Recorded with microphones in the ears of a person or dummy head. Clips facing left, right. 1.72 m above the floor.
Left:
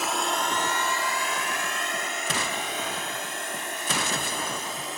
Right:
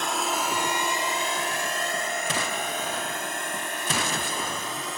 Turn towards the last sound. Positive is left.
turn(degrees=-50)  # may be behind; listen again after turning